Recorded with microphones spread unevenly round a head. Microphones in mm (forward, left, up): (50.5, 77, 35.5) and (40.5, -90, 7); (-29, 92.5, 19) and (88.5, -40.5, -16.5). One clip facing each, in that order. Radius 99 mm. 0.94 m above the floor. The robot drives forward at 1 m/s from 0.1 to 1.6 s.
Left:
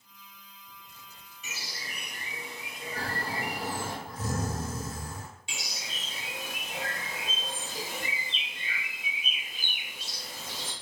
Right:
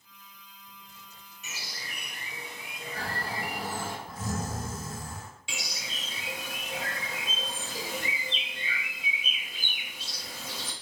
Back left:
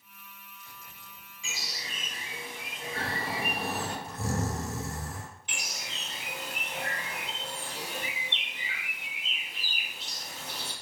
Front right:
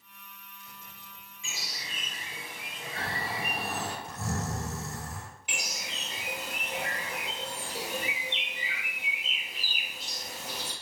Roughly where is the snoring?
Behind left.